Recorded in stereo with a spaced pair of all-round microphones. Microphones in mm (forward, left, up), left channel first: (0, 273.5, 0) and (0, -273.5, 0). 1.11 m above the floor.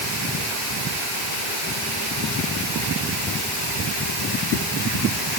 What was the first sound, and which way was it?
Only background noise.